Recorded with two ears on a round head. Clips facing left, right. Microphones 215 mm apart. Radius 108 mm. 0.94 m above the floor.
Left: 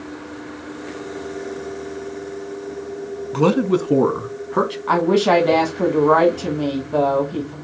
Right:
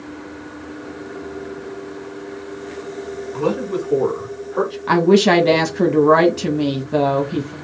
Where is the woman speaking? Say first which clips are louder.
Right 4 dB; 30° right (ahead or behind), 0.9 m.